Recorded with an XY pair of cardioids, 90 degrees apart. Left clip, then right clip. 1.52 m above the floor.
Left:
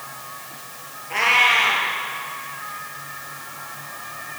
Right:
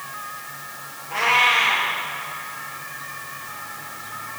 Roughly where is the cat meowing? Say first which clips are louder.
Left 1 dB; ahead left.